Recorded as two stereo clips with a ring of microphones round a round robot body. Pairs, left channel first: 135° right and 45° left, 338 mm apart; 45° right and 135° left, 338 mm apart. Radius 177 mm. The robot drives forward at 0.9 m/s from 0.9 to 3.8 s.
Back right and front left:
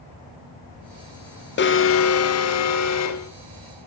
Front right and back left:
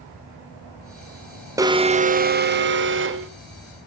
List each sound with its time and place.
1.6 s an alarm: 150° right, 1.0 m; by 3.3 s 175° right, 2 m